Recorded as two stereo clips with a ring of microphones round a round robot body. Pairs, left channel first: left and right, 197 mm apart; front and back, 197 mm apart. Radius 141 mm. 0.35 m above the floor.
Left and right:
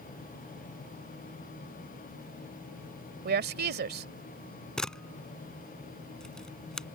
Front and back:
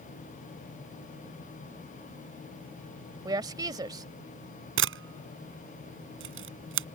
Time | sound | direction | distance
3.2 | a woman speaking | 110° right | ?
4.8 | a camera shutter | 175° left | ?